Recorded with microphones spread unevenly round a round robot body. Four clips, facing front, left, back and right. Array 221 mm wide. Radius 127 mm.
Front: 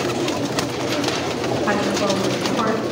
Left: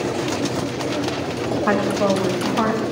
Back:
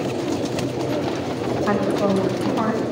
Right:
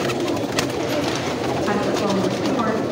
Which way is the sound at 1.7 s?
90° left.